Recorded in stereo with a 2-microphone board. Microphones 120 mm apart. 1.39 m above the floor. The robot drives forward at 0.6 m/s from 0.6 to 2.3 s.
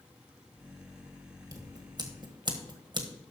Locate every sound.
1.5 s scissors: 30° right (ahead or behind), 1.8 m; by 3.1 s 40° right (ahead or behind), 1.4 m